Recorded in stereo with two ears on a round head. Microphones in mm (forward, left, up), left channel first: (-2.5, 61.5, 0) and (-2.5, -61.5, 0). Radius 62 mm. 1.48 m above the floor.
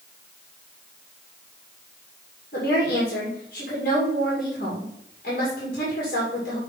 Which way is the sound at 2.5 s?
65° left (ahead or behind).